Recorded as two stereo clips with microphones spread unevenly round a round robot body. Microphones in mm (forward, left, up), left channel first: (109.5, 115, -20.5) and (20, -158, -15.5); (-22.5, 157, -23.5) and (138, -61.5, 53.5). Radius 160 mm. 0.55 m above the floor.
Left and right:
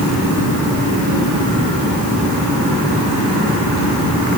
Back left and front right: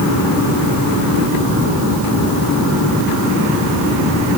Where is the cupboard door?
No cupboard door in this recording.